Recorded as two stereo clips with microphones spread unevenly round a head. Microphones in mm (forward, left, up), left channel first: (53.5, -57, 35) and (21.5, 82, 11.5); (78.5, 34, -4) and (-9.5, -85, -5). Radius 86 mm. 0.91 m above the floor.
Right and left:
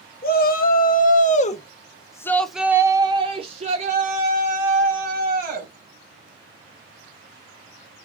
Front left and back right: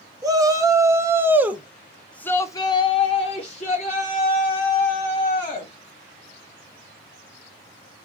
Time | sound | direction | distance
0.2 | a shout | 65° right | 1.3 m